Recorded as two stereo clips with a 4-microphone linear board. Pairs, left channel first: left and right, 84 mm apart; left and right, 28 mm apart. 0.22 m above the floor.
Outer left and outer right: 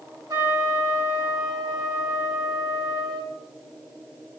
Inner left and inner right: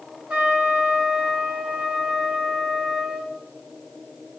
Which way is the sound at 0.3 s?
50° right (ahead or behind).